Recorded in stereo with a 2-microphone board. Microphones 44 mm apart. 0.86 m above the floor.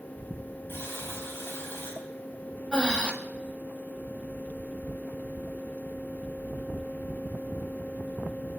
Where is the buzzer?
55° left (ahead or behind), 4 m.